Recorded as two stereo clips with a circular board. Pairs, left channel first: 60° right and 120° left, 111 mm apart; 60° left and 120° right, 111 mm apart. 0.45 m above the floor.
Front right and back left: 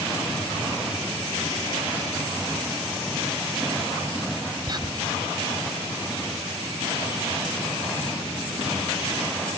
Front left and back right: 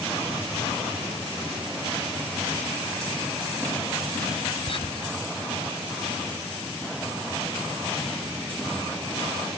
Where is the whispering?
75° left.